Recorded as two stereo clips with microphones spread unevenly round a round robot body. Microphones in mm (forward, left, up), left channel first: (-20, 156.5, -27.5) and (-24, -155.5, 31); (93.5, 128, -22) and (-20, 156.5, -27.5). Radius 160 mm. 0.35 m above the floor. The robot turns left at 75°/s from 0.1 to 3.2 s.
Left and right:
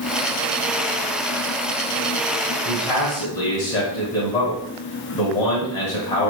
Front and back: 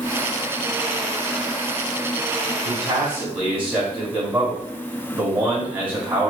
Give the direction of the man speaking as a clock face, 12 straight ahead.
7 o'clock.